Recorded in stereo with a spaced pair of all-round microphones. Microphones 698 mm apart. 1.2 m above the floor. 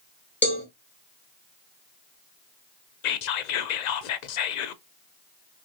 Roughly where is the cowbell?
Centre.